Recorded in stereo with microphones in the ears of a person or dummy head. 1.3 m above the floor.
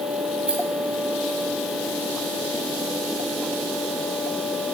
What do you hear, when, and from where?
0.5 s a rattle: 5° right (ahead or behind), 1.6 m